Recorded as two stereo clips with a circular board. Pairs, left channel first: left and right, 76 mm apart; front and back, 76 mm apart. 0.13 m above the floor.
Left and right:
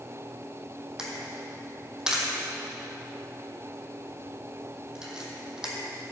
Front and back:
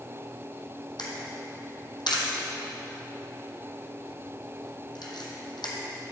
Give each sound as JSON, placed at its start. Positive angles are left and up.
{"t": 1.0, "sound": "a camera shutter", "azimuth_deg": -10, "distance_m": 1.4}